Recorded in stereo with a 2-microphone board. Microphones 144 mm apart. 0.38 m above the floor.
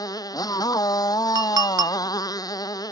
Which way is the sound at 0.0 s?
25° left (ahead or behind).